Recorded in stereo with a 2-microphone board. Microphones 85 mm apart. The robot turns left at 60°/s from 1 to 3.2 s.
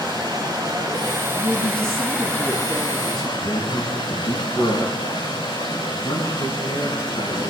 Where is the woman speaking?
110° left, 4.5 m; by 3.3 s straight ahead, 4.5 m.